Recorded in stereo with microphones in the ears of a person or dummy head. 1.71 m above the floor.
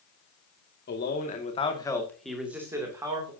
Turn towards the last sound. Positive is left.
turn(degrees=-25)  # may be behind; listen again after turning